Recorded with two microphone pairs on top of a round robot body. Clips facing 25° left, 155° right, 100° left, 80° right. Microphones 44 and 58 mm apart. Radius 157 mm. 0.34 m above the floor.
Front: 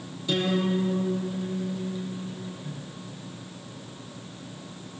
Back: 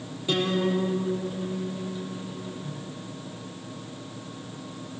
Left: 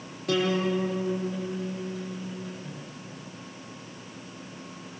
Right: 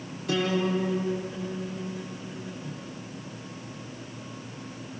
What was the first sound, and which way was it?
A guitar, 140° left.